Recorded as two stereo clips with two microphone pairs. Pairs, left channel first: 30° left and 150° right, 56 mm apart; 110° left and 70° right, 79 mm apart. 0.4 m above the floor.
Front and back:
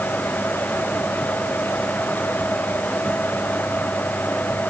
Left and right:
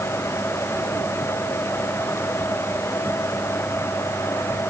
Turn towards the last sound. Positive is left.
No sound to turn to.